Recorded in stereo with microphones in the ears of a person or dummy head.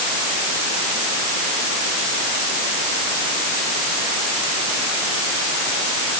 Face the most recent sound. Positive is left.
No sound to turn to.